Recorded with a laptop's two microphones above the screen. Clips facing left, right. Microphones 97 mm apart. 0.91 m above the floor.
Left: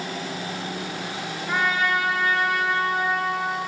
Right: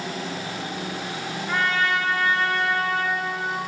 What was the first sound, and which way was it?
A trumpet, 10° left (ahead or behind).